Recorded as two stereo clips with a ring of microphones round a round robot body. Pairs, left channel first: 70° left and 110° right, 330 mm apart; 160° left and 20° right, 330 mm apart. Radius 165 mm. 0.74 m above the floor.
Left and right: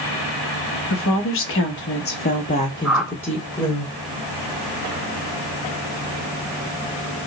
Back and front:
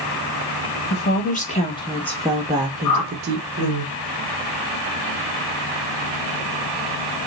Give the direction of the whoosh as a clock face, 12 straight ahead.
7 o'clock.